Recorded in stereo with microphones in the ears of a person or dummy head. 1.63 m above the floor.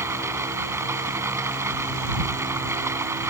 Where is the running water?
15° right (ahead or behind).